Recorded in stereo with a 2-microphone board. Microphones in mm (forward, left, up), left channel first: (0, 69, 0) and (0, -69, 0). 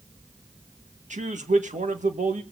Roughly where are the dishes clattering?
I don't hear dishes clattering.